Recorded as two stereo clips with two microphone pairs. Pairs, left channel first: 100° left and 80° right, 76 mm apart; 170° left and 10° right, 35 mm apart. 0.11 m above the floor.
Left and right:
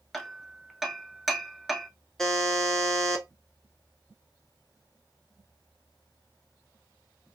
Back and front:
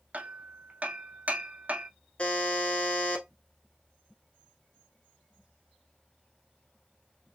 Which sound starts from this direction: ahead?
Hammering, at 0.1 s.